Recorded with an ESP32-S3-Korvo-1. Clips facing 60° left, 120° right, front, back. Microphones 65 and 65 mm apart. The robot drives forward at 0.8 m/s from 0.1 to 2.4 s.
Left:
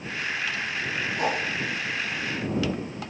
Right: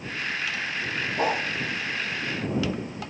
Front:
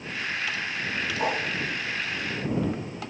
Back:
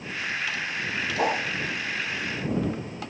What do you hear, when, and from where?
1.2 s a whoosh: 170° right, 9.5 m